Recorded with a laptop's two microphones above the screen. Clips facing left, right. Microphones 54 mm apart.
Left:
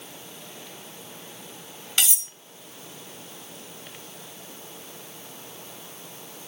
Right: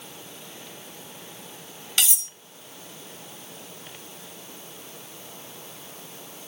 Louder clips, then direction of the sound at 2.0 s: Even; 10° left (ahead or behind).